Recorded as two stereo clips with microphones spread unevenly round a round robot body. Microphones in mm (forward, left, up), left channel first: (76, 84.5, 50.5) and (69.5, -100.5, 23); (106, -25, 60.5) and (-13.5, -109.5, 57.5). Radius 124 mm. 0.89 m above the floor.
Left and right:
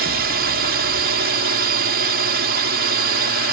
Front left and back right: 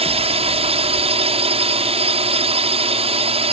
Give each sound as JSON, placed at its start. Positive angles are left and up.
{"t": 0.0, "sound": "a drone", "azimuth_deg": -105}